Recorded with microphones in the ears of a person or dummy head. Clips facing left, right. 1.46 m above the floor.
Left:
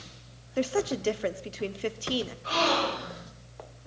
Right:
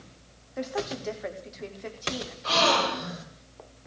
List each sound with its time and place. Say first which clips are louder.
0.6 s a woman speaking: left 5 dB; 40° left (ahead or behind), 0.7 m
2.4 s a gasp: right 4 dB; 70° right (ahead or behind), 3.5 m